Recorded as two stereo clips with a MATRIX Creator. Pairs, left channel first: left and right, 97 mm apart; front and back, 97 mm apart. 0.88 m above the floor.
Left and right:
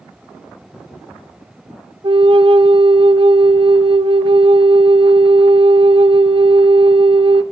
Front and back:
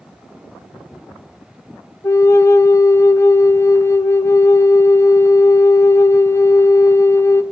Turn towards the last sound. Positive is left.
turn(degrees=-60)